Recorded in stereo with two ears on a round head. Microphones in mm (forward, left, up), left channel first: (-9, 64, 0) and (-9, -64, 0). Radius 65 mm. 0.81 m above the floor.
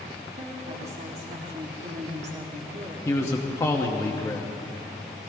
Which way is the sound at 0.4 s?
45° right (ahead or behind).